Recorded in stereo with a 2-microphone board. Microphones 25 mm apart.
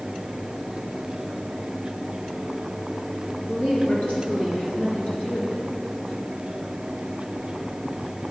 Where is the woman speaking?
55° left (ahead or behind), 4 m.